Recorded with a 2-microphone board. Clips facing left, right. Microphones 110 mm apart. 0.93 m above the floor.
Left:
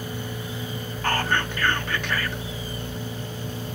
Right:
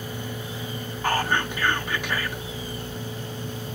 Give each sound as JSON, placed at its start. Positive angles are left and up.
{"t": 1.0, "sound": "whispering", "side_deg": -10, "distance_m": 0.6}